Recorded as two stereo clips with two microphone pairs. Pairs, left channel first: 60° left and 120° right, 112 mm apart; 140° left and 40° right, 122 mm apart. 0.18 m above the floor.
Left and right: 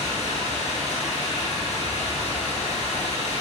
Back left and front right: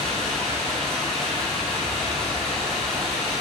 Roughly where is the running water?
Ahead left.